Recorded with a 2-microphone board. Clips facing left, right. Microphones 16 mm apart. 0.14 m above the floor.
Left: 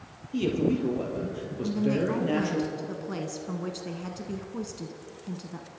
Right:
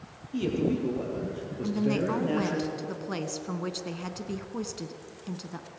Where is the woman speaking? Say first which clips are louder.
Left 1 dB; 20° right (ahead or behind), 1.2 m.